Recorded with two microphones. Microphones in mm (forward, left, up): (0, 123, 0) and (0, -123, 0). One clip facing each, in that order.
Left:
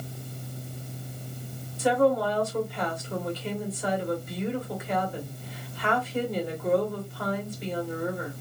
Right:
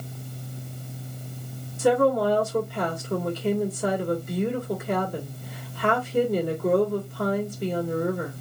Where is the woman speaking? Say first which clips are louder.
Right 3 dB; 50° right (ahead or behind), 1.6 m.